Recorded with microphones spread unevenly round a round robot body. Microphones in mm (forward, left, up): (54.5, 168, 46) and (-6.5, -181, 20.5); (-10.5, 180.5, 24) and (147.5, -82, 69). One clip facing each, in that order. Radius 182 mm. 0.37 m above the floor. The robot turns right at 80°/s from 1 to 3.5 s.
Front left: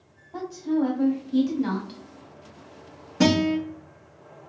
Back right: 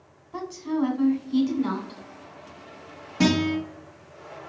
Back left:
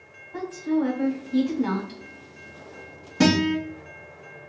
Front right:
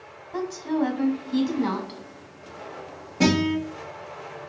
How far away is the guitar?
About 2.5 m.